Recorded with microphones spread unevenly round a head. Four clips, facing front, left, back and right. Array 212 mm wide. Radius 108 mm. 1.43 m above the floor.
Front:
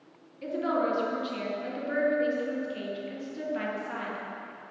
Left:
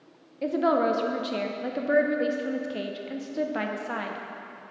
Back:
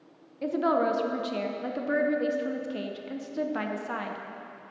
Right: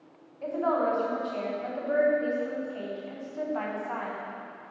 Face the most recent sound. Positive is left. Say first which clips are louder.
# left 3 dB, back 3 dB
turn(degrees=125)